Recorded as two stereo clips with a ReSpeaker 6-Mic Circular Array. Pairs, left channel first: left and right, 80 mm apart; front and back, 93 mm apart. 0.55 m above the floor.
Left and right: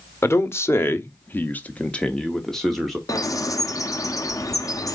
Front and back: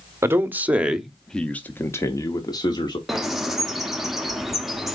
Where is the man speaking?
130° left, 1.0 m; by 3.0 s straight ahead, 1.1 m.